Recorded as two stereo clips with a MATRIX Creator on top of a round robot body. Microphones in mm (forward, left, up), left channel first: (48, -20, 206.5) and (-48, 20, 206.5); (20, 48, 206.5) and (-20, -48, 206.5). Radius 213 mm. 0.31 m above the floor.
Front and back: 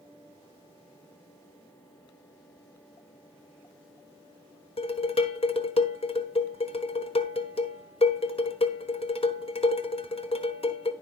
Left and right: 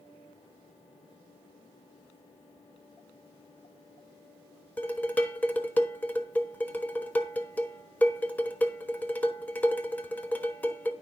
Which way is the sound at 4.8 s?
5° right.